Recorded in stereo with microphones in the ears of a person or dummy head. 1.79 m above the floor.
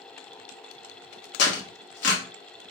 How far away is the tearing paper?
About 1.1 m.